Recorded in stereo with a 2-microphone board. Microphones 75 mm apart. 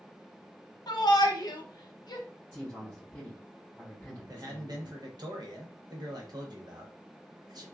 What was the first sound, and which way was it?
A shout, 60° left (ahead or behind).